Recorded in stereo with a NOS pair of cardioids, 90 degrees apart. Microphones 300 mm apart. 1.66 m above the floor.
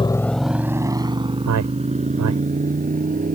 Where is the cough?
I don't hear a cough.